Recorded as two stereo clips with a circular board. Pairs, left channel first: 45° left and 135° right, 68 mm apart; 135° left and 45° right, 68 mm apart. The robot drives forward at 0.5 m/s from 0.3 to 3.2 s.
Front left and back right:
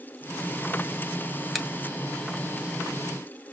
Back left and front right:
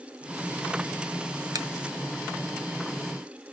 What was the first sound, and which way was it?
A finger snap, 45° right.